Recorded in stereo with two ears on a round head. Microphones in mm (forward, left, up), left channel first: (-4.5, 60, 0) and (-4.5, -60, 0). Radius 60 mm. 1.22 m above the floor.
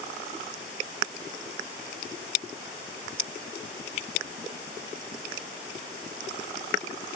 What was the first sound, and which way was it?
Only background noise.